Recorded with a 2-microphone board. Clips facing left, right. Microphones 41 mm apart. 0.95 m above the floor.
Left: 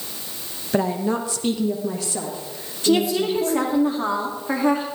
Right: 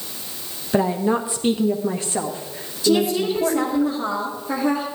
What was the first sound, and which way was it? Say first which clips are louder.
A woman speaking: right 2 dB; 5° right (ahead or behind).